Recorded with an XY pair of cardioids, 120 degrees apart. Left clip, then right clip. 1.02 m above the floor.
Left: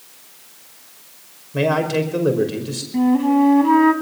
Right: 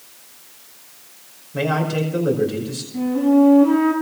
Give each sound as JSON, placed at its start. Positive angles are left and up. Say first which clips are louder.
{"t": 1.5, "sound": "a man speaking", "louder": "left 3 dB", "azimuth_deg": 25, "distance_m": 5.0}
{"t": 2.9, "sound": "a flute", "louder": "even", "azimuth_deg": 55, "distance_m": 4.5}